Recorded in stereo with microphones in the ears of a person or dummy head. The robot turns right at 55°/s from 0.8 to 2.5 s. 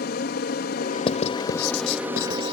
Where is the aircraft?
125° left; by 2.5 s 140° right.